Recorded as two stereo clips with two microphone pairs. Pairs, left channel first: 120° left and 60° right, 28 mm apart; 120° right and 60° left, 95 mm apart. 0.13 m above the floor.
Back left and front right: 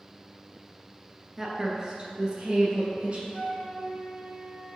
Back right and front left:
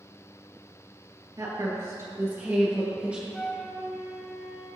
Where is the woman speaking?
20° left, 1.6 m; by 3.2 s 15° right, 2 m.